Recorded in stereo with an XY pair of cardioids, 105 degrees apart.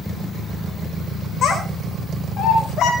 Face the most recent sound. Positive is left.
turn(degrees=75)